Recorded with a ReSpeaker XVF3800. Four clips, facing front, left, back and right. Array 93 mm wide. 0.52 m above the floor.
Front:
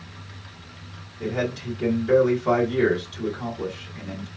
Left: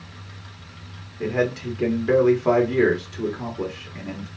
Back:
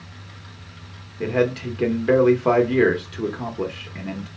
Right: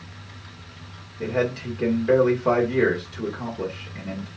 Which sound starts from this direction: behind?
A man speaking, at 1.2 s.